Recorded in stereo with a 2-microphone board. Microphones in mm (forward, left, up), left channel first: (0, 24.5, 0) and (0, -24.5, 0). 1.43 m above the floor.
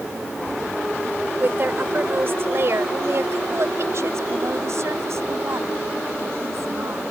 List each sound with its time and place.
1.4 s a woman speaking: 40° right (ahead or behind); by 7.1 s 70° right (ahead or behind)